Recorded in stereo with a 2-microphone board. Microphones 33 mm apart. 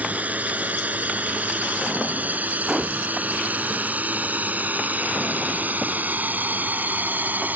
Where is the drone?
45° right (ahead or behind); by 7.6 s 60° right (ahead or behind).